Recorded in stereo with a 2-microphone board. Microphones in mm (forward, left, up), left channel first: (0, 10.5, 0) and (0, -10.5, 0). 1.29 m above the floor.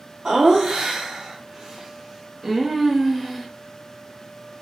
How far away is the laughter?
About 0.9 m.